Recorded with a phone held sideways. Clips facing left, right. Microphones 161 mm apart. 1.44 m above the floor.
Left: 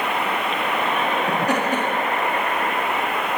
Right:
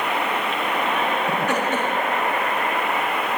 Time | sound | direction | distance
1.3 | laughter | 40° left (ahead or behind) | 4.5 m